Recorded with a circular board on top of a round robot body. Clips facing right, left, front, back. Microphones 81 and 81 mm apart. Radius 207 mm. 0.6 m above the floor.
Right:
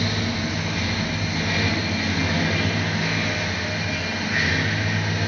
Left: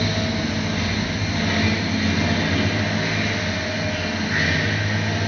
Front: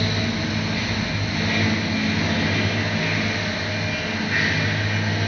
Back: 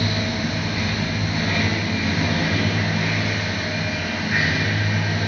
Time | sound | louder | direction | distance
0.0 | running water | left 2 dB, even | 115° left | 1.2 m